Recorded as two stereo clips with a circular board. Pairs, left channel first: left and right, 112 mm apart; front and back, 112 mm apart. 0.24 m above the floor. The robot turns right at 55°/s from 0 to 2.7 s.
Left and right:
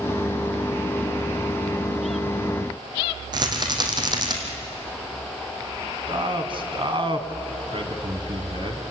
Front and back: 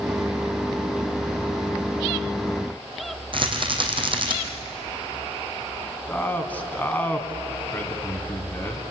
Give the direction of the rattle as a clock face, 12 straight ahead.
5 o'clock.